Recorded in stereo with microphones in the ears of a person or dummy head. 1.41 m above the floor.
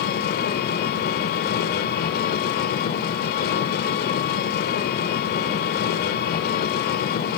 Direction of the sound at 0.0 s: 55° left (ahead or behind).